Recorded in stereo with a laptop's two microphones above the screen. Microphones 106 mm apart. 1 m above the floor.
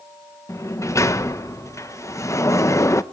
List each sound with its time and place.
0.5 s a sliding door: 30° left (ahead or behind), 0.8 m